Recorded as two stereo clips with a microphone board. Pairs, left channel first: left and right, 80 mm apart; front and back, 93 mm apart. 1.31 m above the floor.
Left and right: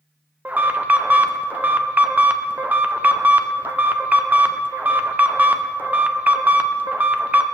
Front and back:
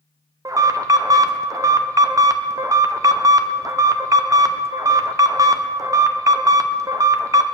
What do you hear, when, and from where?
0.5 s an alarm: 150° right, 0.7 m